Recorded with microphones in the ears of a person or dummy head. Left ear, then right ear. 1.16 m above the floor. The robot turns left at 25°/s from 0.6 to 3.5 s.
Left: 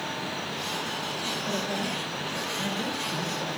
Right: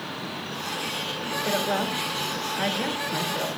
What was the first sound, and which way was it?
A woman speaking, 110° right.